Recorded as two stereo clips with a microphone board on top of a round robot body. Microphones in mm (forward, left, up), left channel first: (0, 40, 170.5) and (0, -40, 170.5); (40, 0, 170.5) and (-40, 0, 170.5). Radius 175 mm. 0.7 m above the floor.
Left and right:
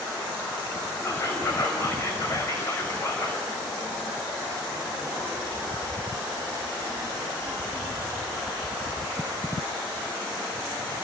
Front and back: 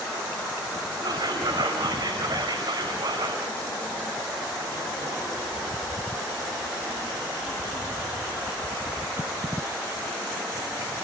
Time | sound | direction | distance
1.0 | whispering | 145° left | 5 m